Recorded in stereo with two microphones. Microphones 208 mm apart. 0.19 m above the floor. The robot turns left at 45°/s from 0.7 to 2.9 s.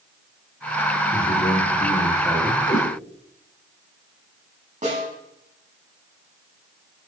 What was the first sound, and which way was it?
A man speaking, 60° left.